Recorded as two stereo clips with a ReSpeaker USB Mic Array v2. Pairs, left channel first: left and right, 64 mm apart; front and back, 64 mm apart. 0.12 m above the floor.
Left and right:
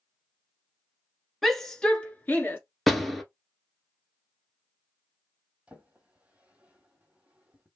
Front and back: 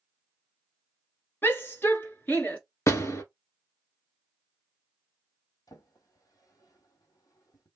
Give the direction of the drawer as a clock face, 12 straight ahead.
1 o'clock.